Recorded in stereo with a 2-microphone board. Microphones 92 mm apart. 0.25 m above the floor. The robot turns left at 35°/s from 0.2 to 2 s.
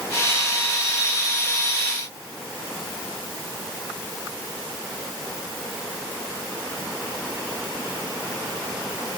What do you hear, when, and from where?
Only background noise.